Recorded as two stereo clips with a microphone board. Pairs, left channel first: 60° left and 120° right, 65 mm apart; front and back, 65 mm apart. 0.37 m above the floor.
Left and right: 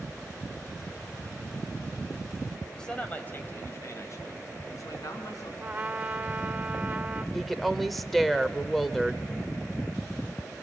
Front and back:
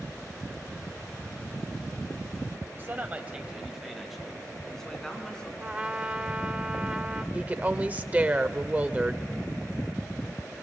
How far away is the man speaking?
About 1.7 m.